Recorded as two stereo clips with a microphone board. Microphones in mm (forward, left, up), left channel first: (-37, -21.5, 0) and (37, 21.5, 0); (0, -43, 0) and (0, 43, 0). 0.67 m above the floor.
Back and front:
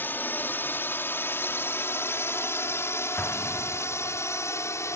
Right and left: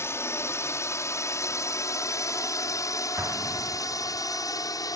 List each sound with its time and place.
0.0 s a drone: 105° right; by 5.0 s 110° right
3.2 s an explosion: 145° left